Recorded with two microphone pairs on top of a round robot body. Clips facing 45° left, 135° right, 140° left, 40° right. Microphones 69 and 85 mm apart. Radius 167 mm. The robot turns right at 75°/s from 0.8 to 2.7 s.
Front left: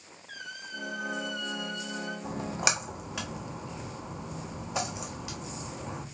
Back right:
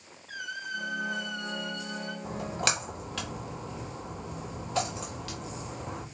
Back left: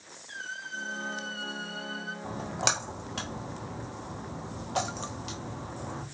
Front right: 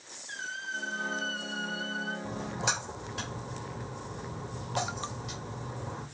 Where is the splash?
95° left, 1.2 m; by 6.0 s 125° left, 1.2 m.